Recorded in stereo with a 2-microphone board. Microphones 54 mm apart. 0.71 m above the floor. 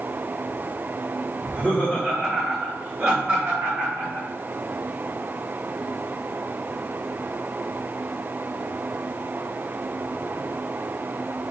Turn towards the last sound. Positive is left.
turn(degrees=-35)  # may be behind; listen again after turning